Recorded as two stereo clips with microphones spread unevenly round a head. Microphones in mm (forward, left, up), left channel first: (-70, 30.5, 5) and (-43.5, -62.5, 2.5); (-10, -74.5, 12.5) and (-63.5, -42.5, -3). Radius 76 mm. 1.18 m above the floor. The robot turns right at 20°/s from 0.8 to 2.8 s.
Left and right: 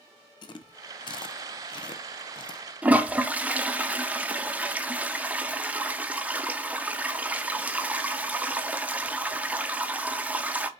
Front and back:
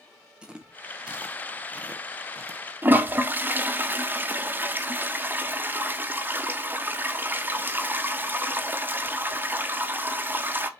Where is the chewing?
90° left, 0.7 m; by 2.6 s 125° left, 0.7 m.